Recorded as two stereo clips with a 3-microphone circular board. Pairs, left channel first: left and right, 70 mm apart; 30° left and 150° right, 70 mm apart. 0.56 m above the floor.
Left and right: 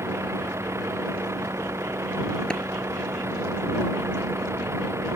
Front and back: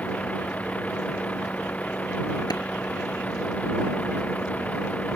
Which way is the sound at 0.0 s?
40° right.